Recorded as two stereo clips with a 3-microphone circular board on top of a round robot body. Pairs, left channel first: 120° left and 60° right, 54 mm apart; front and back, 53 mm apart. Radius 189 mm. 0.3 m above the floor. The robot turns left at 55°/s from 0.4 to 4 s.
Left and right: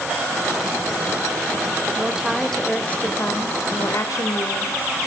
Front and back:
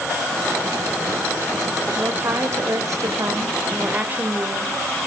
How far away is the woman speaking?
About 2.5 m.